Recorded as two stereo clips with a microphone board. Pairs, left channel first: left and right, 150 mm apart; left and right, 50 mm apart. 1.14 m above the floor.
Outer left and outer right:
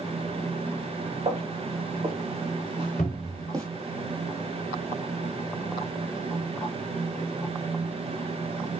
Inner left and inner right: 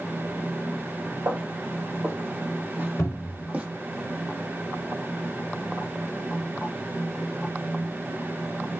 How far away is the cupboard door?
About 1.9 m.